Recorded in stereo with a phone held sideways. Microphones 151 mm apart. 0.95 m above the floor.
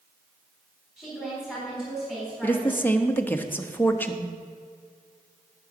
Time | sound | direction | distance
1.0 | a woman speaking | centre (ahead or behind) | 3.5 m
2.4 | a woman speaking | 15° left (ahead or behind) | 0.9 m